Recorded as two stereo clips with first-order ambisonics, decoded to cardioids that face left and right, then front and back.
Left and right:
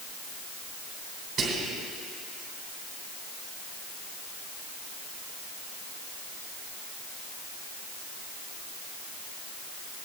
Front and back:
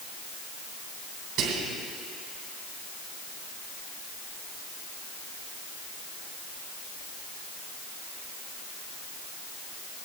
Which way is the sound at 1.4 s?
140° right.